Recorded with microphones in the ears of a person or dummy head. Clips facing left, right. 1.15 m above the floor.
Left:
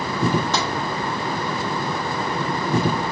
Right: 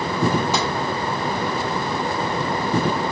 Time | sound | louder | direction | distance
0.5 | tapping | right 1 dB | 10° right (ahead or behind) | 1.0 m